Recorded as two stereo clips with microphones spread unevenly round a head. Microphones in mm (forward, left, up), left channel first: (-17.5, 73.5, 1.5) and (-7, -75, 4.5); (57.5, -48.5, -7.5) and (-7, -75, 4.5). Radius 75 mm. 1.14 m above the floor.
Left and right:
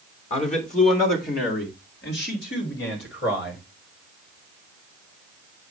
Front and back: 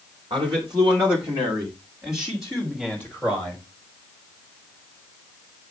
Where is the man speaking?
140° left, 2 m; by 3.6 s 105° left, 3.5 m.